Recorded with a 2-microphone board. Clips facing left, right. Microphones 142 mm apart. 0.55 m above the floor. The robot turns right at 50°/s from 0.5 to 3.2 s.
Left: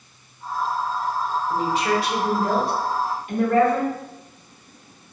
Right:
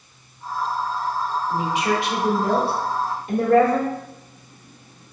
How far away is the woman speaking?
About 1.4 m.